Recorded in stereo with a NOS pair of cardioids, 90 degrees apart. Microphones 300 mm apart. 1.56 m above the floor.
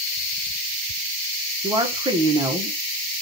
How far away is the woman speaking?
About 1.0 m.